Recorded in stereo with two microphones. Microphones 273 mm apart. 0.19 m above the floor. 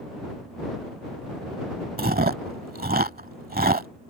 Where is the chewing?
35° right (ahead or behind).